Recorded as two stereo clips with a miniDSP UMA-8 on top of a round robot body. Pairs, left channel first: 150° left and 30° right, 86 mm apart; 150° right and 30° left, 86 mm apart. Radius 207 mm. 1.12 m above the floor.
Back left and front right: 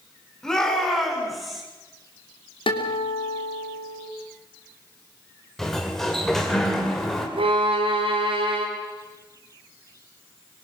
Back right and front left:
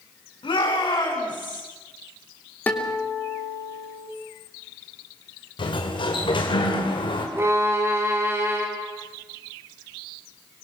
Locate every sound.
0.4 s a shout: 125° right, 6.5 m; by 1.6 s 120° right, 6.5 m
2.7 s a guitar: 140° left, 3 m
5.6 s a sliding door: 125° right, 3 m
7.4 s a violin: 35° right, 3 m